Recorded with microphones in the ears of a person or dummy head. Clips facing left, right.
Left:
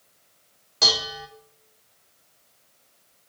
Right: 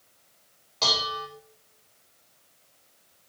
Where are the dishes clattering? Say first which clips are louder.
Left 1 dB; 15° left (ahead or behind), 0.8 m.